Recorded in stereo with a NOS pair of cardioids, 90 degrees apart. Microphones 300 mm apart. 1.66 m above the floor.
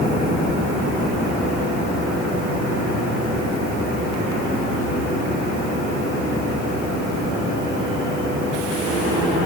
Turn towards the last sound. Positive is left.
No sound to turn to.